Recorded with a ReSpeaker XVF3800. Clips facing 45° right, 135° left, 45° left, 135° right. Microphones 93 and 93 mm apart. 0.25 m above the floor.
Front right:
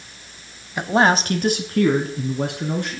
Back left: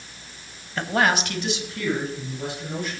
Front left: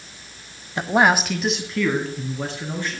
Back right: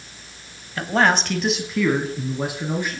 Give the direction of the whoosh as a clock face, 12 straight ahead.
No whoosh in this recording.